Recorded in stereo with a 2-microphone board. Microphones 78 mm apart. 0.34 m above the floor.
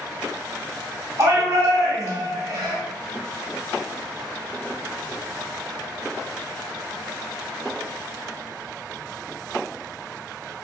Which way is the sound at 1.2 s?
40° right (ahead or behind).